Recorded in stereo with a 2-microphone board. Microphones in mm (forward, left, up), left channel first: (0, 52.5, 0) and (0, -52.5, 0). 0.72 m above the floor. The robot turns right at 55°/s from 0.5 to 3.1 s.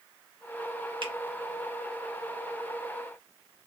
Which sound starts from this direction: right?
A finger snap, at 1.0 s.